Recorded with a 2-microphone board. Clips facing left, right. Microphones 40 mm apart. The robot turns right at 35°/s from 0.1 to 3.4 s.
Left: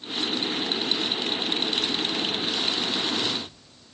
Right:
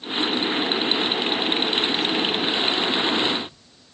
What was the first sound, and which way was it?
Only background noise.